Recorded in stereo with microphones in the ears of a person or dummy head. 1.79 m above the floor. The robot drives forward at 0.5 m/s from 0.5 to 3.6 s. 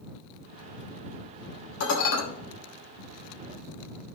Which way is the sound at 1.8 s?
75° left (ahead or behind).